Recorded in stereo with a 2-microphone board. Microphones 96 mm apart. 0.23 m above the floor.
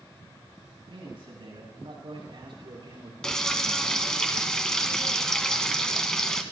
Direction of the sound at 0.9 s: 65° right (ahead or behind).